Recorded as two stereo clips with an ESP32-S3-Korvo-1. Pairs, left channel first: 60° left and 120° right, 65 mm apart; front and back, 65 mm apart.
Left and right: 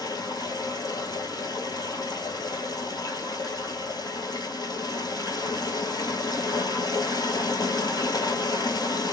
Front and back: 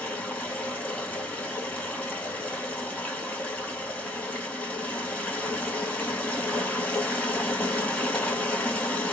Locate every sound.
0.0 s running water: 65° left, 1.4 m